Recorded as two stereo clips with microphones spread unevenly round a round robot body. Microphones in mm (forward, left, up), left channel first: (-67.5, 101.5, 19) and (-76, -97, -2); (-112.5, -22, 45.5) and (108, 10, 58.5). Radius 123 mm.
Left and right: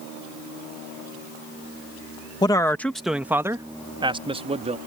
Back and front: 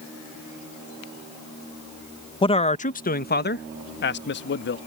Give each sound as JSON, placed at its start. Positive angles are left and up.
{"t": 2.4, "sound": "a man speaking", "azimuth_deg": 150}